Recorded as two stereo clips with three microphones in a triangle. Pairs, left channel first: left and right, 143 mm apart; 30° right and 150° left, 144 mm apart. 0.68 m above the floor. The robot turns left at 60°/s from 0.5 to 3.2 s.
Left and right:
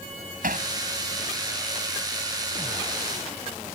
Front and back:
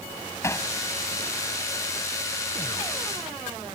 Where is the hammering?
100° right; by 0.7 s 110° right.